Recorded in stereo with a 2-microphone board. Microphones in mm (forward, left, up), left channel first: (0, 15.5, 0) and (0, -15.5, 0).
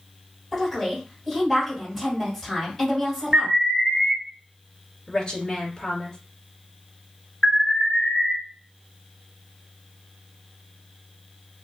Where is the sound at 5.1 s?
25° left (ahead or behind), 1.8 m.